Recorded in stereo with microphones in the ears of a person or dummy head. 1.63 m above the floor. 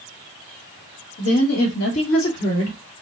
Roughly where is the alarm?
No alarm in this recording.